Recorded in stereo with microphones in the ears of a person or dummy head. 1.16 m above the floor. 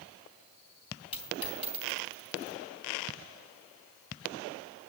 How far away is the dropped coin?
About 3.5 m.